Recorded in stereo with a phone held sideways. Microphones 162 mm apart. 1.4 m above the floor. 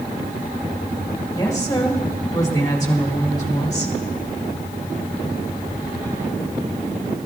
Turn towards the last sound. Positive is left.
turn(degrees=25)  # may be behind; listen again after turning